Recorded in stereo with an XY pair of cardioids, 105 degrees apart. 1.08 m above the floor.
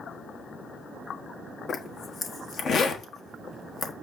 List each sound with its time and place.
1.7 s a zipper: 55° left, 1.2 m